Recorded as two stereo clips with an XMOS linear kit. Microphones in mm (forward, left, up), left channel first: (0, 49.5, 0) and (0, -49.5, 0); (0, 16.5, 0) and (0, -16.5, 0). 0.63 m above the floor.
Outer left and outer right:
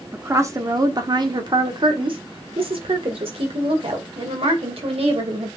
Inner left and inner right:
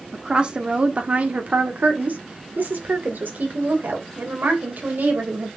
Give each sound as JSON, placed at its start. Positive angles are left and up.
{"t": 0.1, "sound": "a woman speaking", "side_deg": -25, "distance_m": 1.3}